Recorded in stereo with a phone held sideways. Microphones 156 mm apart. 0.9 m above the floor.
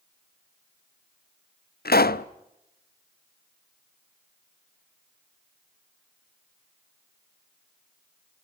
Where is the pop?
75° left (ahead or behind), 0.7 m.